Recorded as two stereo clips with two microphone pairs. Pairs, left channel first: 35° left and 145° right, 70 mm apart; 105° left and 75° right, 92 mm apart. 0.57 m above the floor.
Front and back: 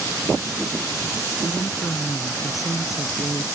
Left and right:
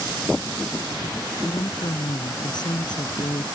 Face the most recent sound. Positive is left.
turn(degrees=70)